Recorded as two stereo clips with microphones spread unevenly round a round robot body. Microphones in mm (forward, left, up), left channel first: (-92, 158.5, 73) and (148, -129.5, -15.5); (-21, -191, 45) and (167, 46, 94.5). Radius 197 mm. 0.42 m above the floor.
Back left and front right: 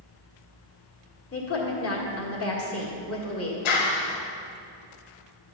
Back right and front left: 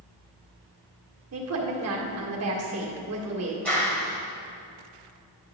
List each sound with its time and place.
1.3 s a woman speaking: 75° left, 1.7 m
3.6 s a clap: 150° left, 1.6 m